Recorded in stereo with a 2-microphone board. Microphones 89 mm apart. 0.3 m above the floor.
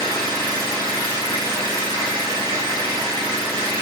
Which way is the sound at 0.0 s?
30° left (ahead or behind).